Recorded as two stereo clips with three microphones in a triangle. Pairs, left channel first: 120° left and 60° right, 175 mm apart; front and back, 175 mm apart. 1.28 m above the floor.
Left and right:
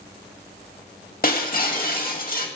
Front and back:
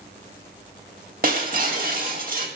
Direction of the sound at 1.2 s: 150° left.